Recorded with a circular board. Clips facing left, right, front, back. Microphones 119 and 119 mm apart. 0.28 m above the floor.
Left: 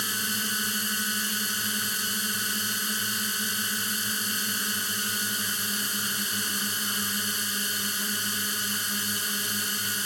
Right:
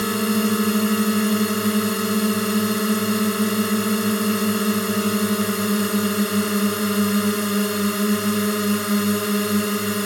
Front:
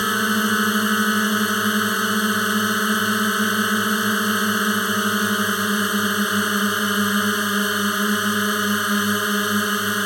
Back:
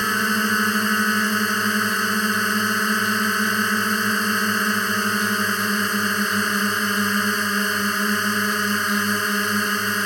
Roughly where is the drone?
Right.